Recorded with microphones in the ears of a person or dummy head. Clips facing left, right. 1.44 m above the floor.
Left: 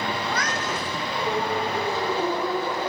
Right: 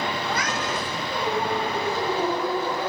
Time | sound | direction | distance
0.2 | a cat meowing | 10° right (ahead or behind) | 1.0 m